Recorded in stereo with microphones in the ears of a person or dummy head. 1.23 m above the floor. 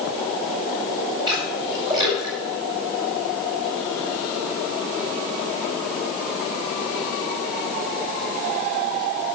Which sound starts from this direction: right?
A splash, at 1.3 s.